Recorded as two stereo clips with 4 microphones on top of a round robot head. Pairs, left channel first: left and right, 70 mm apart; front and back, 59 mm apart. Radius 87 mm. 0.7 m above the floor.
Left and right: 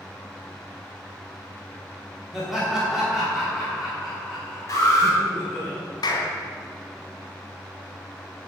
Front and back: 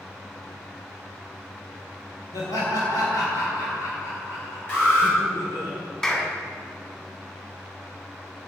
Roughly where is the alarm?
Ahead left.